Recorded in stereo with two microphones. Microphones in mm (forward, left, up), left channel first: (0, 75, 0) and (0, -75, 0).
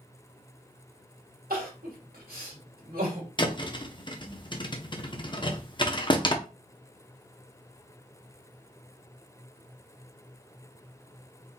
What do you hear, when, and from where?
1.5 s crying: 75° right (ahead or behind), 1.9 m
3.4 s a thud: 30° left (ahead or behind), 0.8 m